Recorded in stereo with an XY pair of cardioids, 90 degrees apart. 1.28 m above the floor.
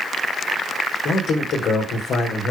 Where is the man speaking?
70° left, 4 m.